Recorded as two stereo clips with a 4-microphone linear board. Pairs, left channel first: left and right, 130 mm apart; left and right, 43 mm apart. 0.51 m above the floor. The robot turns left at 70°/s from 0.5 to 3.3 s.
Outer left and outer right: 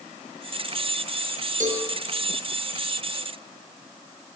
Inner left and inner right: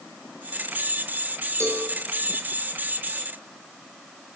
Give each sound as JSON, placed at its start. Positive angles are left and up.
{"t": 1.6, "sound": "a cowbell", "side_deg": -75, "distance_m": 3.5}